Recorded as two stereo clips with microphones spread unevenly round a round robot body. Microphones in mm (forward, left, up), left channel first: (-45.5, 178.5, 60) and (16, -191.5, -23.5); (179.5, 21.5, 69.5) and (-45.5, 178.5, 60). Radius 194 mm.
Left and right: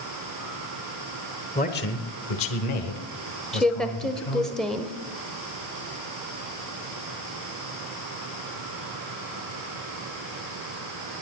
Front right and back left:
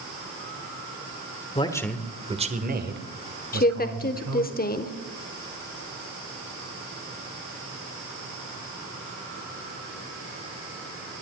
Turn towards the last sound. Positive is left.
turn(degrees=-10)